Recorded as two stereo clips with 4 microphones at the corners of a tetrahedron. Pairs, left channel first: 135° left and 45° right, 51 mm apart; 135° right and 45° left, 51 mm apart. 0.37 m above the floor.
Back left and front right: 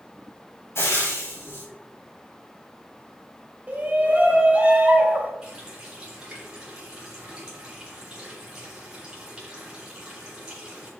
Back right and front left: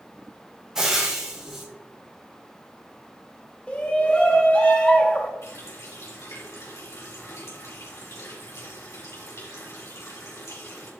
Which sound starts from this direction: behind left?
Frying, at 0.8 s.